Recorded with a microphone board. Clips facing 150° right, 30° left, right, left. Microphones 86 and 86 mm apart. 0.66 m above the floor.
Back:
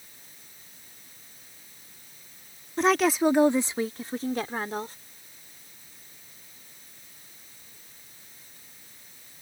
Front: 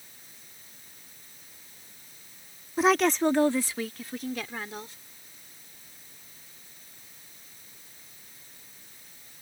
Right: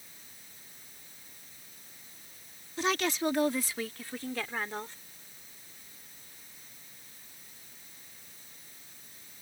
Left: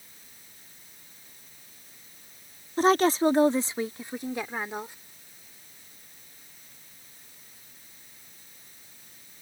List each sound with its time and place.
2.8 s a woman speaking: 110° left; by 5.0 s 165° left